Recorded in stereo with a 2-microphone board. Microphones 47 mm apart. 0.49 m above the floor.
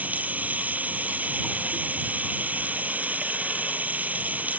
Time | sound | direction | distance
0.0 | running water | 35° right (ahead or behind) | ?